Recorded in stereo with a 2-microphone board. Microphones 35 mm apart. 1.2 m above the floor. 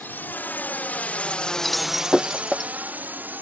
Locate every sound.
0.0 s a drone: 70° left (ahead or behind); by 3.4 s 70° right (ahead or behind)
1.6 s breaking glass: centre (ahead or behind)